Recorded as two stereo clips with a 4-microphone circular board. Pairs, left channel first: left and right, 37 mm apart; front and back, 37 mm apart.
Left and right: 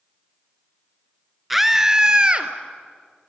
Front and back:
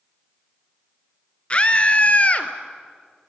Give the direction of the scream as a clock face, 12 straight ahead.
12 o'clock.